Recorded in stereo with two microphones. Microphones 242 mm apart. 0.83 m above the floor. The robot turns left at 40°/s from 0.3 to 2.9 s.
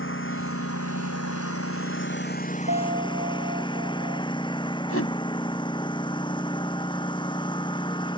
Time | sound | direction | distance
0.0 | a lawn mower | 125° left | ?
2.7 | a piano | 50° right (ahead or behind) | ?
4.9 | a whoosh | 70° left (ahead or behind) | ?